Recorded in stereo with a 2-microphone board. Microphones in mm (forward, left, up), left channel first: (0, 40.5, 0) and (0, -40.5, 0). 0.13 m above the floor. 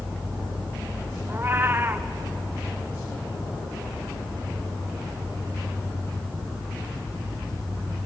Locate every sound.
1.3 s a cat meowing: 30° right (ahead or behind), 1.6 m